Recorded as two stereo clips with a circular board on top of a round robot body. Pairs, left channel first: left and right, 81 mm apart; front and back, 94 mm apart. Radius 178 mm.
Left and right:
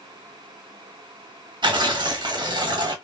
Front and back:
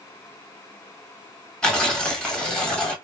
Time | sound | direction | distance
1.6 | tearing paper | 80° right | 1.6 m